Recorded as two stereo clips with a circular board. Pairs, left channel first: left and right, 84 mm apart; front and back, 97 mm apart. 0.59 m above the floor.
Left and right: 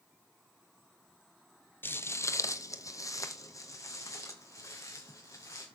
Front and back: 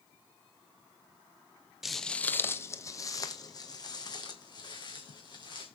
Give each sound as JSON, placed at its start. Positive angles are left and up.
{"t": 1.8, "sound": "footsteps", "azimuth_deg": 95, "distance_m": 0.6}